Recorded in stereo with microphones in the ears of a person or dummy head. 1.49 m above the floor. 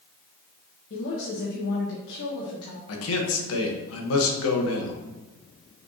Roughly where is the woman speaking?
Left.